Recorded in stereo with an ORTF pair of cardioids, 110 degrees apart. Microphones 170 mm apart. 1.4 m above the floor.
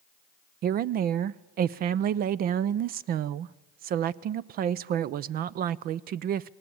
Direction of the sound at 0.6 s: 65° right.